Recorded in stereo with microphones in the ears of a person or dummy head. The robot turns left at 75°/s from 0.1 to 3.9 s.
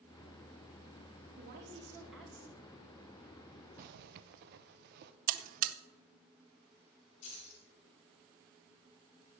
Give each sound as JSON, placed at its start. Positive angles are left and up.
{"t": 1.4, "sound": "a woman speaking", "azimuth_deg": -120, "distance_m": 2.0}
{"t": 3.8, "sound": "a zipper", "side_deg": -45, "distance_m": 0.7}
{"t": 5.3, "sound": "a buzzer", "side_deg": -45, "distance_m": 0.6}
{"t": 7.2, "sound": "keys jangling", "side_deg": 40, "distance_m": 3.0}